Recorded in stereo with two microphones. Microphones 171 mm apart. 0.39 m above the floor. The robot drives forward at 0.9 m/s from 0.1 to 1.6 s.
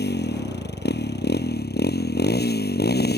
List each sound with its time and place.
0.0 s a motorcycle: 80° left; by 3.2 s 75° left (ahead or behind)